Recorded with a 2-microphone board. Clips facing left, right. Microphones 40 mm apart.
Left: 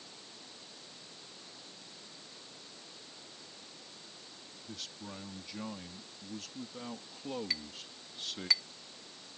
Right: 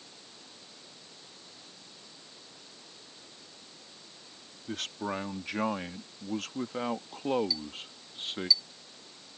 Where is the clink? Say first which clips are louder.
Right 3 dB; 60° left (ahead or behind).